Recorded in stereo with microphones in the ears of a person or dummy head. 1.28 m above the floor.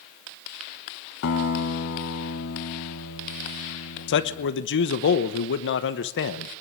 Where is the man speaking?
60° left (ahead or behind), 1.0 m.